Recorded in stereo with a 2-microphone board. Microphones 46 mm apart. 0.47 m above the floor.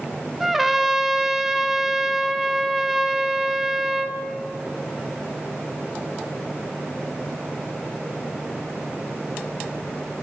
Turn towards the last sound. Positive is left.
turn(degrees=-5)  # may be behind; listen again after turning